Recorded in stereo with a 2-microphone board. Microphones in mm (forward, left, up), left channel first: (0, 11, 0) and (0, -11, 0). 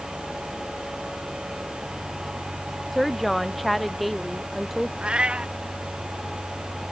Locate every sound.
2.9 s a woman speaking: 5° left (ahead or behind); by 4.9 s centre (ahead or behind)
5.0 s a cat meowing: 50° right (ahead or behind)